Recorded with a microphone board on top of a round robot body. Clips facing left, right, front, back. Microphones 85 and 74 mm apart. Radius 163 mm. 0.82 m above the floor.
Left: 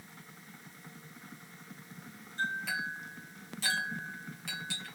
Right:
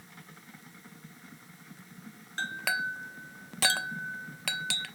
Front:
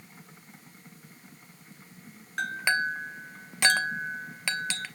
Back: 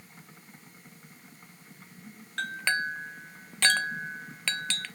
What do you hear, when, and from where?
2.4 s a clink: 80° right, 0.6 m